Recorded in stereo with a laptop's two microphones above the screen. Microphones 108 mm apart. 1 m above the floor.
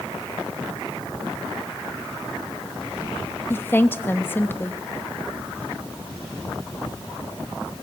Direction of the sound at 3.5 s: 20° left (ahead or behind).